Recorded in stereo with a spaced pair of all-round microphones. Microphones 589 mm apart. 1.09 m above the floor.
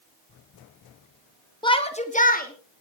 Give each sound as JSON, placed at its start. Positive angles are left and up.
{"t": 1.6, "sound": "a shout", "side_deg": 10, "distance_m": 2.0}